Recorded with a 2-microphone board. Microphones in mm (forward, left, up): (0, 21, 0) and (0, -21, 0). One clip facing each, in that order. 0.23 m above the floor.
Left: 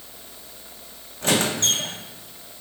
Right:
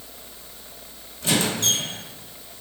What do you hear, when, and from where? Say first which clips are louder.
1.2 s a squeak: left 1 dB; 50° left (ahead or behind), 1.2 m